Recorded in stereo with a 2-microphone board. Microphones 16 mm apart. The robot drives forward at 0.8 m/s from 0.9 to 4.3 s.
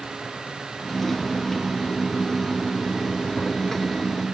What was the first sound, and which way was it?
Only background noise.